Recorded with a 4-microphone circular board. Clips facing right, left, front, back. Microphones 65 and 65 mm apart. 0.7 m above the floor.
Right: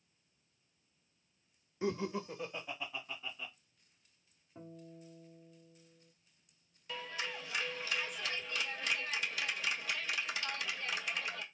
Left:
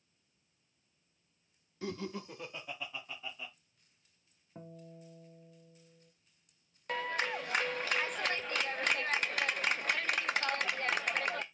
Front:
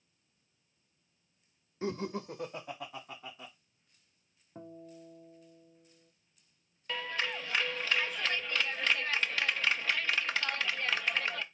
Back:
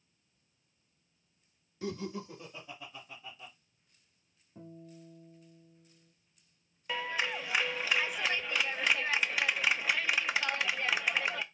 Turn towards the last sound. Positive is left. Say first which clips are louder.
# left 7 dB, back 2 dB
turn(degrees=105)